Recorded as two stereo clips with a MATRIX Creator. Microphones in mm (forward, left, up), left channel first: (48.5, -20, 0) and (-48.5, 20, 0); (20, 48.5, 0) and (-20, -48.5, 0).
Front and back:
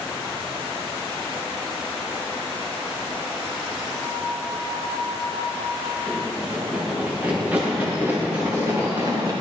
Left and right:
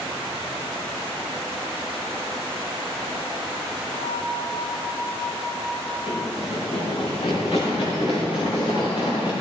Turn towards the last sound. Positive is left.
turn(degrees=100)